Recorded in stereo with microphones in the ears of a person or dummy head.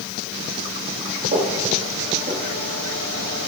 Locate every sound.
1.3 s footsteps: 50° right (ahead or behind), 4 m; by 3.3 s 35° right (ahead or behind), 3.5 m